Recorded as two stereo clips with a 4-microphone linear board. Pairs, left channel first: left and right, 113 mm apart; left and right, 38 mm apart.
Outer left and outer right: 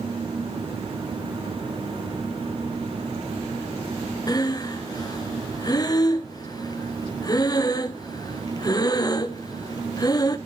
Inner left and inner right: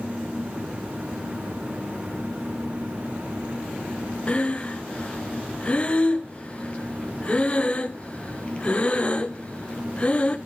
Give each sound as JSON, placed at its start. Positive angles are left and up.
{"t": 4.3, "sound": "breathing", "side_deg": 35, "distance_m": 0.8}